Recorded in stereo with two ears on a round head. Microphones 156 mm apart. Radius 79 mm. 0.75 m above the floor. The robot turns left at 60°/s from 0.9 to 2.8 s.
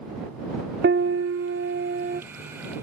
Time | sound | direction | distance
0.8 | a piano | 60° right | ?